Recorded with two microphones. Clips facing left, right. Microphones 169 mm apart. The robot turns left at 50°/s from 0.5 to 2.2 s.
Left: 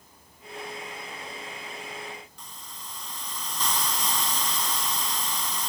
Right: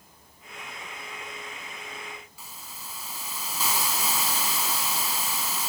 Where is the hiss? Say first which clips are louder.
Even; 5° right (ahead or behind), 1.5 m.